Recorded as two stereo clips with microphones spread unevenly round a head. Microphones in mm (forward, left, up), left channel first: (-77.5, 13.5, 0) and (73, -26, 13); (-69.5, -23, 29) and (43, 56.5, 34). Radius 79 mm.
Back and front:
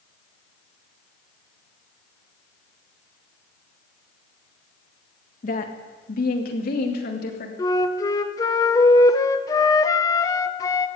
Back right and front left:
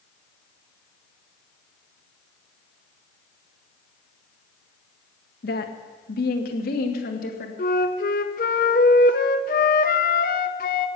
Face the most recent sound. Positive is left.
turn(degrees=-125)